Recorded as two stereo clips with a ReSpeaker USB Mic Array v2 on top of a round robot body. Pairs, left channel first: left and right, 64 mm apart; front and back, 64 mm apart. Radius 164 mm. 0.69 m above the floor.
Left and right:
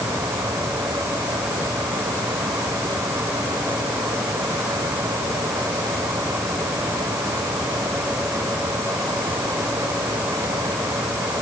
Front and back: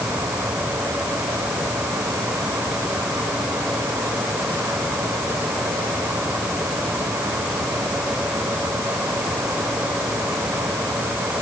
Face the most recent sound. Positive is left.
No sound to turn to.